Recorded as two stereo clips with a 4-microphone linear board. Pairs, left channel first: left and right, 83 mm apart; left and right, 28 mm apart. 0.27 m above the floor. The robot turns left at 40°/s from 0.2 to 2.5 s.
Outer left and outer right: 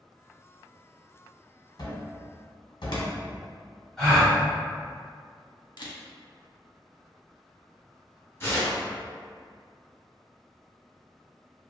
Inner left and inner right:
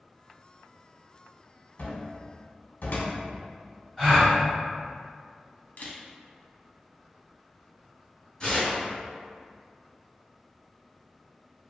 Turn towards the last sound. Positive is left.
turn(degrees=30)  # may be behind; listen again after turning